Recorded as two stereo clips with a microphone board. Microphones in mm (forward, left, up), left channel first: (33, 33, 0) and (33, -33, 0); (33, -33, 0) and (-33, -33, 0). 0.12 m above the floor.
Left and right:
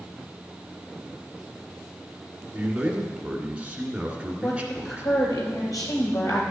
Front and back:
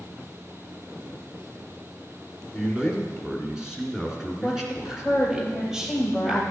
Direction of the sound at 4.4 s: 100° left.